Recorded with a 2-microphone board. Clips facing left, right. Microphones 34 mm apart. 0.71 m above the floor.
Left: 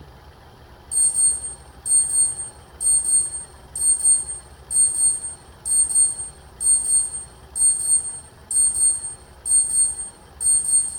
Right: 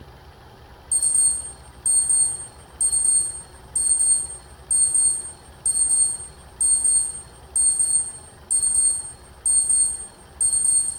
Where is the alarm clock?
60° right (ahead or behind), 2.0 m.